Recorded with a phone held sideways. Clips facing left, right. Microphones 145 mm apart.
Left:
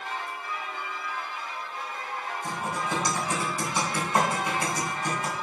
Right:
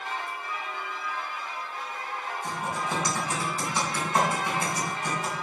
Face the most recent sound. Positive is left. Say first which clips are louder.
# even
turn(degrees=20)  # may be behind; listen again after turning